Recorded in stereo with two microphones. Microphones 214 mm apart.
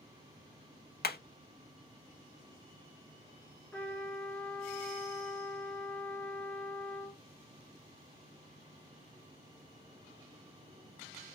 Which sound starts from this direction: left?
Hammering, at 1.0 s.